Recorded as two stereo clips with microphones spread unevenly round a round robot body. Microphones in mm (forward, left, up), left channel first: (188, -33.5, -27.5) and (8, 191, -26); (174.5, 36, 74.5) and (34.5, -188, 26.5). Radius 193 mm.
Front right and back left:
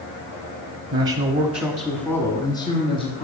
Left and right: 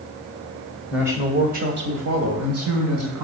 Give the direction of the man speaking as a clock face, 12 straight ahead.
7 o'clock.